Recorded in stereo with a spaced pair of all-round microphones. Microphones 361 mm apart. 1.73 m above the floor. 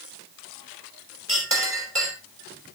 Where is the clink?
35° right (ahead or behind), 4.5 m.